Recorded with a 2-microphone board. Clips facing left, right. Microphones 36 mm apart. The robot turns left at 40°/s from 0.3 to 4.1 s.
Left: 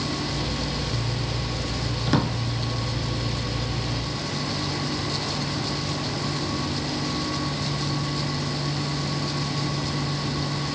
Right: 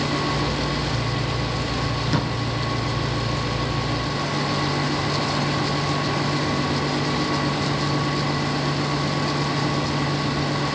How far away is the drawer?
About 0.5 m.